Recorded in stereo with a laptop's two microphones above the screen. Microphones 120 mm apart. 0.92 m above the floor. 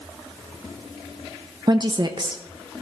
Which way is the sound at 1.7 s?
40° right (ahead or behind).